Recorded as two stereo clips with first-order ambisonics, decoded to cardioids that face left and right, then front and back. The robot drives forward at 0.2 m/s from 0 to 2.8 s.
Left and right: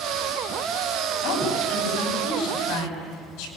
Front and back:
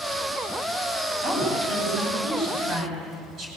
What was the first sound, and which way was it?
A woman speaking, 125° left.